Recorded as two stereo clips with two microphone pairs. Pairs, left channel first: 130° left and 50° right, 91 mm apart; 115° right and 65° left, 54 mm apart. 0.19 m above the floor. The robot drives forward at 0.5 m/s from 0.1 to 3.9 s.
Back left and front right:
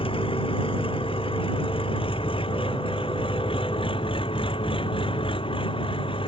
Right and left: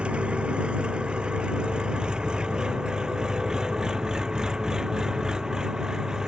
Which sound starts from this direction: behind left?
An engine running, at 0.0 s.